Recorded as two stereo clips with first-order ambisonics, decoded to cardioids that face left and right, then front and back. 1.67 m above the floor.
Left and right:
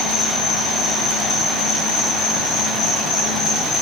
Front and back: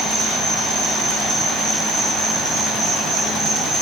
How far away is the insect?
About 4 m.